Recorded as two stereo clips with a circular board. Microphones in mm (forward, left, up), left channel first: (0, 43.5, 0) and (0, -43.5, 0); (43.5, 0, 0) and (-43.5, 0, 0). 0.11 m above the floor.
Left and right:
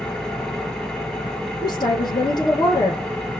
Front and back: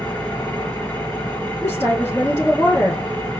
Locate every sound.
0.0 s an engine running: 25° left, 1.5 m
1.6 s a woman speaking: 65° left, 2.5 m